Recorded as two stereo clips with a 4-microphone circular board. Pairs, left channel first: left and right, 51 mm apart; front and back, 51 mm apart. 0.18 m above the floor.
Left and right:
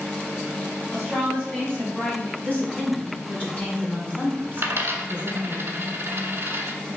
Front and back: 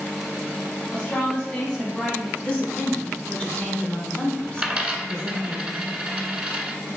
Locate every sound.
0.9 s a woman speaking: 20° left, 1.4 m; by 2.3 s 110° left, 1.2 m
2.4 s a woman speaking: 55° left, 1.7 m
4.6 s a dropped coin: 115° right, 0.7 m